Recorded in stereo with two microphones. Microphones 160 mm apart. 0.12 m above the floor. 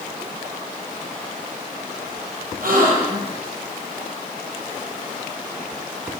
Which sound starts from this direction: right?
A gasp, at 2.6 s.